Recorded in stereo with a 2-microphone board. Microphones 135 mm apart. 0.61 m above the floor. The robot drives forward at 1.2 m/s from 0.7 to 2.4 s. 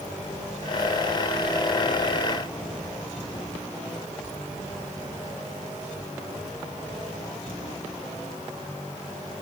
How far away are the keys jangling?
I don't hear keys jangling.